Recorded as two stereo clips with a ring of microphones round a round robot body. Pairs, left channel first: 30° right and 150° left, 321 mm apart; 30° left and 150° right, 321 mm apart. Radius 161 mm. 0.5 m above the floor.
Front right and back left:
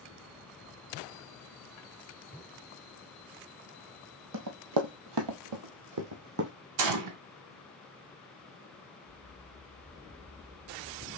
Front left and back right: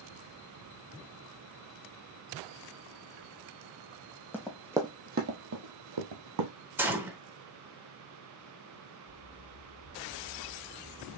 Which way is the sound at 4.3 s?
115° left.